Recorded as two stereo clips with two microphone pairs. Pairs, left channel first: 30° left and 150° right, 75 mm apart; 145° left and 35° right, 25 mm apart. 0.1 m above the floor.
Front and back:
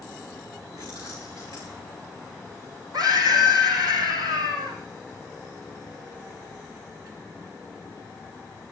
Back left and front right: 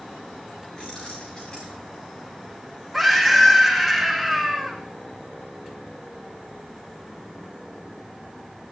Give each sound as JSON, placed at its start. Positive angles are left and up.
{"t": 0.8, "sound": "keys jangling", "azimuth_deg": -170, "distance_m": 6.5}
{"t": 2.9, "sound": "a scream", "azimuth_deg": -135, "distance_m": 5.0}